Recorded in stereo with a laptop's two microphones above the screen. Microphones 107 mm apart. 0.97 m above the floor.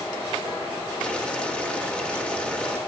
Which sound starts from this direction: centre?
Boiling, at 1.0 s.